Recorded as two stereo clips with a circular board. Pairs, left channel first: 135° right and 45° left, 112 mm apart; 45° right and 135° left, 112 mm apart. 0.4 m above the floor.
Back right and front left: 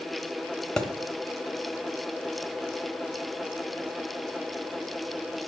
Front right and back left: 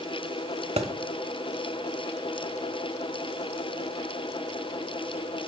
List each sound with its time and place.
0.8 s a thud: 145° left, 0.8 m